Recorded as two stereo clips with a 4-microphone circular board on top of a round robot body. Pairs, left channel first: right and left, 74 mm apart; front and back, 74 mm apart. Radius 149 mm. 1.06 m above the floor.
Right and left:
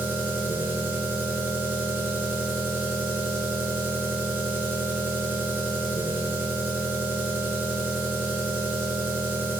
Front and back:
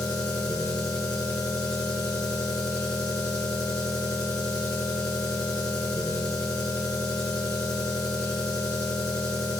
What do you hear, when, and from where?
0.0 s an engine running: 25° left, 2.5 m